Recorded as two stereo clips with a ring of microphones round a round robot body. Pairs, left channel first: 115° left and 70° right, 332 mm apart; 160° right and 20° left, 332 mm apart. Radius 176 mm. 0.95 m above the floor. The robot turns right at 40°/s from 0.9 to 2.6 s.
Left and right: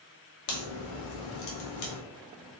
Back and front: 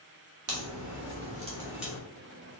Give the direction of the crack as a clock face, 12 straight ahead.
10 o'clock.